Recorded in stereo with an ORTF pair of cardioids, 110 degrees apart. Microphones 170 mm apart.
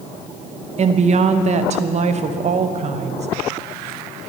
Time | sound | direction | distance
0.8 | a woman speaking | 40° right | 0.9 m